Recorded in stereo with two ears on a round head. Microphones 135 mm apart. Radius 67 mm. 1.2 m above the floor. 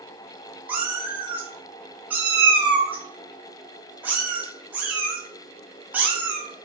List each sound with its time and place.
0.7 s a cat meowing: 10° right (ahead or behind), 0.8 m